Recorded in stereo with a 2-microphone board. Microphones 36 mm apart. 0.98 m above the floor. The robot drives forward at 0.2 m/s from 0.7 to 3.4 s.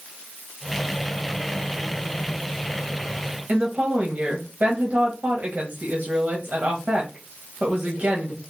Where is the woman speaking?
50° right (ahead or behind), 0.8 m.